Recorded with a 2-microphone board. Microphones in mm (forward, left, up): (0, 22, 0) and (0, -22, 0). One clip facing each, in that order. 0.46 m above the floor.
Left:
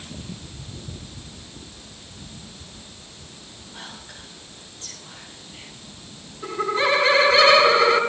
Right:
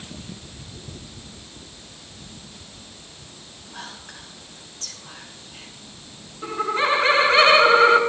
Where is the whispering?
70° right (ahead or behind), 5.5 m.